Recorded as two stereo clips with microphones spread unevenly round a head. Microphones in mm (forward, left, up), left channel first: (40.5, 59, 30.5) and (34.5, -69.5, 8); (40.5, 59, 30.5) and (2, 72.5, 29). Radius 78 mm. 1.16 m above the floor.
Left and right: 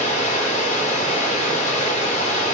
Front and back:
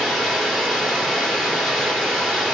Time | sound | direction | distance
0.0 | running water | 65° left | 2 m